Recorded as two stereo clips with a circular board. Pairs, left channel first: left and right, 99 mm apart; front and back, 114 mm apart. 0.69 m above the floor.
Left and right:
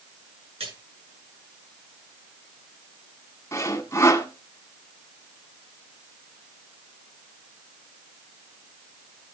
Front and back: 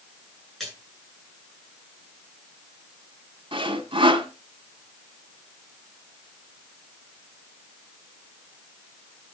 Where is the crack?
No crack in this recording.